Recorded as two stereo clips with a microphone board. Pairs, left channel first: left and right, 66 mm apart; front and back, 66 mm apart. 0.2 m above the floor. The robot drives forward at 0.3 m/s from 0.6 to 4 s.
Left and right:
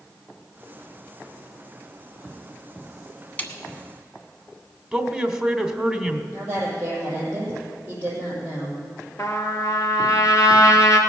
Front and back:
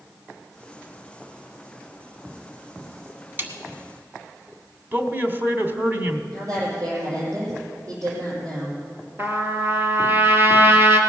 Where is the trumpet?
125° left, 1.8 m.